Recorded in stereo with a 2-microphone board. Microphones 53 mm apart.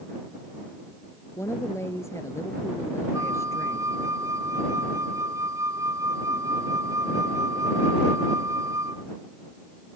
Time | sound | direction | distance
1.4 | a woman speaking | 60° left (ahead or behind) | ?
3.1 | a flute | 75° right (ahead or behind) | ?